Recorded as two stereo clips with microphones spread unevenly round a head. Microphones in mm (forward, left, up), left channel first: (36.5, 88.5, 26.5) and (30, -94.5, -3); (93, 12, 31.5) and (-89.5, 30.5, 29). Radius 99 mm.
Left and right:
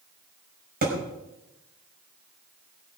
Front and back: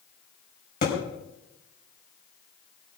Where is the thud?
50° right, 5.5 m.